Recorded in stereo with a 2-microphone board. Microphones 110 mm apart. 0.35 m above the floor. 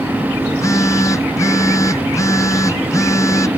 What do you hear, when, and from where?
0.5 s a phone buzzing: 25° left (ahead or behind)